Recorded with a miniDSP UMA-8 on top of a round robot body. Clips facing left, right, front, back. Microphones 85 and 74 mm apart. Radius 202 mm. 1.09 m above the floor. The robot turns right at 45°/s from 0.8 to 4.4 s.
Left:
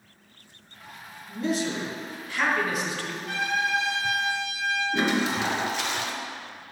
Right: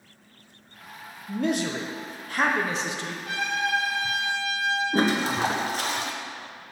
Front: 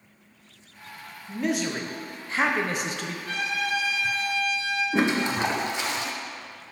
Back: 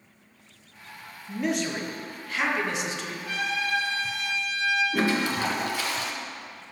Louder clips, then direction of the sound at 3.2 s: Even, even; 105° right.